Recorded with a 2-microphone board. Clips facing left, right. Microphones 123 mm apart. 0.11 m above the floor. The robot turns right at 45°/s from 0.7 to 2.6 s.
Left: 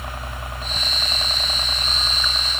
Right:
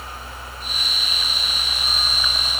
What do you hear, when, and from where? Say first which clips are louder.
0.0 s a helicopter: left 3 dB; 95° left; by 2.6 s straight behind